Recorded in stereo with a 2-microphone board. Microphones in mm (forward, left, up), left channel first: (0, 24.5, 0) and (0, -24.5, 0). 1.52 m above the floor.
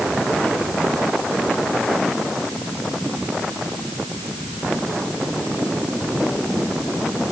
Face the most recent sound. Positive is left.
No sound to turn to.